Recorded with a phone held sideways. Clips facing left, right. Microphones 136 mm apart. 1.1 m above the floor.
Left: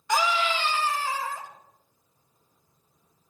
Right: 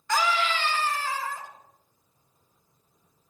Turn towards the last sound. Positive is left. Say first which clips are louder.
# left 1 dB
turn(degrees=20)  # may be behind; listen again after turning